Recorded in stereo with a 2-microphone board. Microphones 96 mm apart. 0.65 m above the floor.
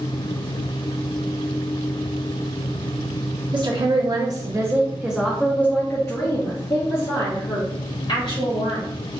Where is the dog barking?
No dog barking in this recording.